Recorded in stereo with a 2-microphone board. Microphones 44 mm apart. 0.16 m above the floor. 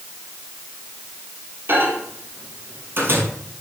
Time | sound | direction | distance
1.7 | a microwave | 60° right (ahead or behind) | 3 m